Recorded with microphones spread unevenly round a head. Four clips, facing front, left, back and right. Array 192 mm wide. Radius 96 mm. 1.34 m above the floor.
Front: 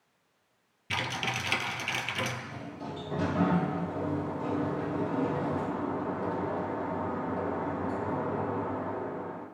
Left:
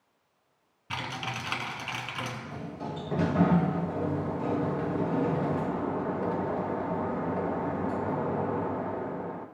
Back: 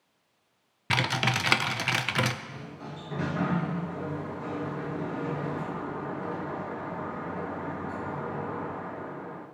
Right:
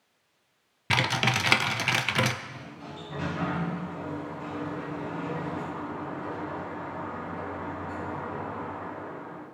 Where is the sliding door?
65° left, 1.1 m.